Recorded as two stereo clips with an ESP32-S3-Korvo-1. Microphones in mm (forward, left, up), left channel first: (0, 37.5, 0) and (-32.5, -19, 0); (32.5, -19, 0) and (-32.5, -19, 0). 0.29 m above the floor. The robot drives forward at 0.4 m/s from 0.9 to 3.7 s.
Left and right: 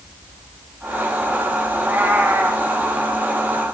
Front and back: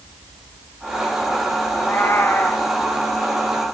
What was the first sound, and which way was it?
A cat meowing, 55° right.